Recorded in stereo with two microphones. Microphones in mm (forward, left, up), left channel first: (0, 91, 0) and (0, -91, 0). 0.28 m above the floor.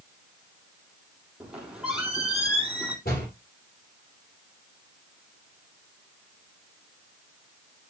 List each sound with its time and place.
1.4 s a squeak: 5° right (ahead or behind), 3.5 m
3.0 s a door slam: 55° left (ahead or behind), 6 m